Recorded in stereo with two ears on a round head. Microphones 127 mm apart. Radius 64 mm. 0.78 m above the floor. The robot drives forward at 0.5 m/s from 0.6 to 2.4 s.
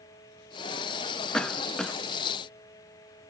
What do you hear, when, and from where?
1.3 s a cough: 5° left (ahead or behind), 0.6 m